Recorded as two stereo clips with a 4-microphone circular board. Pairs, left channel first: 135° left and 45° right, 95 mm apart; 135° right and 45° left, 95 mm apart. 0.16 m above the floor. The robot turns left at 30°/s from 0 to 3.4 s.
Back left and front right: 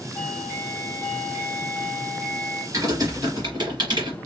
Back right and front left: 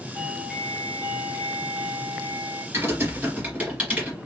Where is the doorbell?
130° left, 2 m; by 2.6 s 55° left, 2 m.